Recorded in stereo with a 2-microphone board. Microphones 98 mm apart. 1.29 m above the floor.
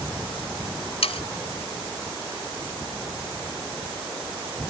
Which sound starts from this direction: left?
Sawing, at 1.0 s.